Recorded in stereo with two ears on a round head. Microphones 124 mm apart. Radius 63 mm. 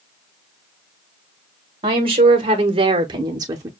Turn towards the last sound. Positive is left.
turn(degrees=-25)  # may be behind; listen again after turning